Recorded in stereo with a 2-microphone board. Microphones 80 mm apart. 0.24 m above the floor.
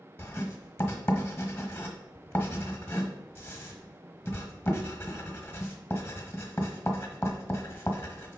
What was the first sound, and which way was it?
Writing, 25° left (ahead or behind).